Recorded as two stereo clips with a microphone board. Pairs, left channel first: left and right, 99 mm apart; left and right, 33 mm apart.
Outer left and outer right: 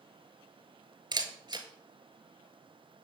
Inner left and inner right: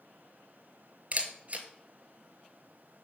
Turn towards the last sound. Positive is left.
turn(degrees=-45)  # may be behind; listen again after turning